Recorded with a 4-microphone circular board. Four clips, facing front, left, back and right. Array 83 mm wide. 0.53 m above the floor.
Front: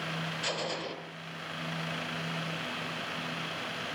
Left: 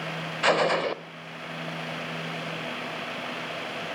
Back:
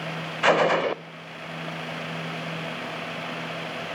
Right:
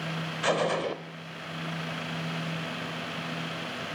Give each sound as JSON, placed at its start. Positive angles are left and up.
{"t": 0.4, "sound": "a gunshot", "azimuth_deg": 160, "distance_m": 0.7}